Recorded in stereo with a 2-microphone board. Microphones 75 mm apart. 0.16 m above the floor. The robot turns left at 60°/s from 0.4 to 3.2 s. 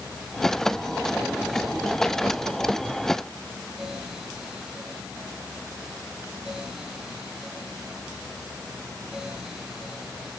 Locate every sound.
Only background noise.